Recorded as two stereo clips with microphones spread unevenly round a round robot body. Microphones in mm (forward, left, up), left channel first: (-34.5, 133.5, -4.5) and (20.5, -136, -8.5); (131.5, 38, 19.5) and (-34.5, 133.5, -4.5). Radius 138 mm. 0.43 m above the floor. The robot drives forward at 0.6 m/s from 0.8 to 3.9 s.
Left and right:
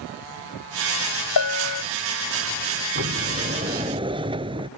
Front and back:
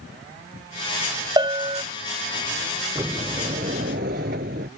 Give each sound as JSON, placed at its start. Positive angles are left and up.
{"t": 1.4, "sound": "a bell", "azimuth_deg": 85}
{"t": 3.0, "sound": "a sliding door", "azimuth_deg": -130}